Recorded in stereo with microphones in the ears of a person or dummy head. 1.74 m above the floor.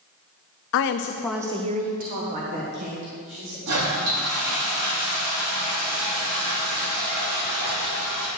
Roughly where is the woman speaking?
Left.